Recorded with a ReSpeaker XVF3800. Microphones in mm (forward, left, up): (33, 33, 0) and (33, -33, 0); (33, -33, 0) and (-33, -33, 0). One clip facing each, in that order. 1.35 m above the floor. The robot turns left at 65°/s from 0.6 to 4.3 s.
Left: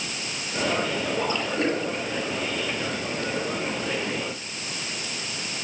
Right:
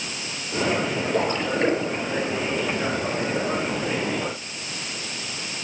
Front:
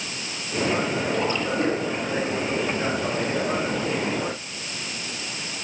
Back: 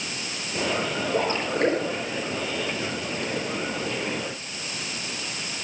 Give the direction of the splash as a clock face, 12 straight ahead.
4 o'clock.